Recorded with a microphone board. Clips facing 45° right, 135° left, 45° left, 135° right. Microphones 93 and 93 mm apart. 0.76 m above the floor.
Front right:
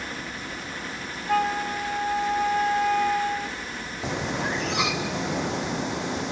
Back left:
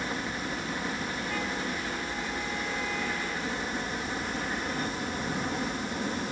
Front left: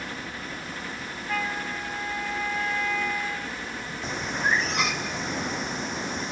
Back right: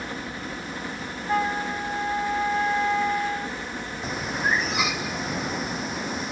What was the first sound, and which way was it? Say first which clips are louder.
A helicopter: back left 2 dB, back right 3 dB; 175° right.